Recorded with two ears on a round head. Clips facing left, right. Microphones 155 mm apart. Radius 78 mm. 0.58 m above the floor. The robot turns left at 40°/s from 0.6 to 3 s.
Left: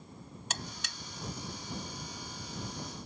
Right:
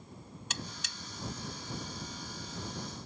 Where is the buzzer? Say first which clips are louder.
Left 1 dB; 40° left (ahead or behind); by 1.0 s 55° left (ahead or behind).